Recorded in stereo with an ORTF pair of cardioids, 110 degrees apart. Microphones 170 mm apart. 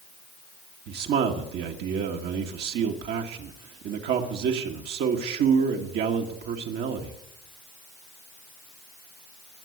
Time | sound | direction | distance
0.9 | a man speaking | 70° right | 1.7 m